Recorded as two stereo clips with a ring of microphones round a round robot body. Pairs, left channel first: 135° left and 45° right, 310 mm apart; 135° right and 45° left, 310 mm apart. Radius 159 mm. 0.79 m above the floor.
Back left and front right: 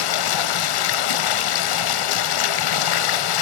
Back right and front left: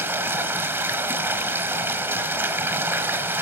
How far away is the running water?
About 1.1 m.